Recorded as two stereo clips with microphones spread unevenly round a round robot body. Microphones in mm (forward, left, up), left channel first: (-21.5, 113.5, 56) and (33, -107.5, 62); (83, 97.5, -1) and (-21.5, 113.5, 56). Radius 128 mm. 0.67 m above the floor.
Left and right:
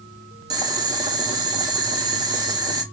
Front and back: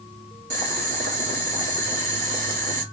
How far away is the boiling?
About 0.8 m.